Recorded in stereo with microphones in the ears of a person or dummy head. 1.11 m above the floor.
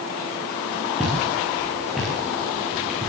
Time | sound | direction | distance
1.0 | footsteps | 5° left (ahead or behind) | 10 m